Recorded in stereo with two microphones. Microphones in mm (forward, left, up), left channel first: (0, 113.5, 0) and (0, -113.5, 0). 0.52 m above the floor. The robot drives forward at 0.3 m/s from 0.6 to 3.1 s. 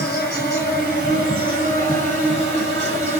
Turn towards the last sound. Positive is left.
turn(degrees=30)  # may be behind; listen again after turning